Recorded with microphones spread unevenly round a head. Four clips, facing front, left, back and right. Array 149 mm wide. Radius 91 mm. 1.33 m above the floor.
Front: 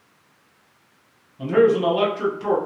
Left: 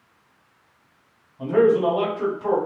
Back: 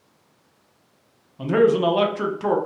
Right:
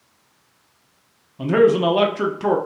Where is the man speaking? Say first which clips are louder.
Right 2 dB, front 1 dB; 95° right, 0.7 m.